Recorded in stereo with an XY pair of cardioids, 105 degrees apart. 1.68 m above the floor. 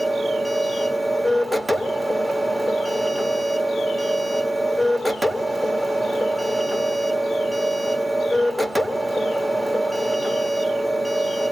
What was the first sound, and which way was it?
A machine running, 5° left.